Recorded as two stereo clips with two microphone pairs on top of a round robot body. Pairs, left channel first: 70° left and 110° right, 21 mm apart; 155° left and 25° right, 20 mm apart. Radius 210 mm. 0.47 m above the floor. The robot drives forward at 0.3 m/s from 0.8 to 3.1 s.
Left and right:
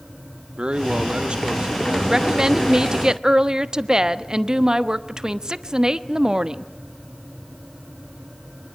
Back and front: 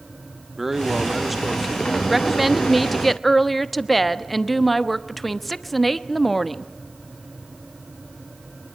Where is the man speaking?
100° right, 1.5 m; by 2.4 s 120° right, 1.6 m.